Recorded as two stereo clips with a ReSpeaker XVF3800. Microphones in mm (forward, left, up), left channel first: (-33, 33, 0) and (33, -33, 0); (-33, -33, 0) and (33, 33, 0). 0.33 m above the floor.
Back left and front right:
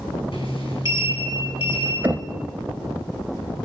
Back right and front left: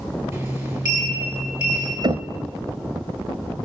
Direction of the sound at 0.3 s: 100° left.